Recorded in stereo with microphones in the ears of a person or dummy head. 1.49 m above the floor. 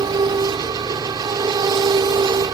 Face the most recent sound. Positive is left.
turn(degrees=-25)  # may be behind; listen again after turning